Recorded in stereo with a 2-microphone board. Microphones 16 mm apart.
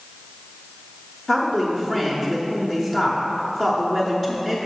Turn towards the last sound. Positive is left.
turn(degrees=10)  # may be behind; listen again after turning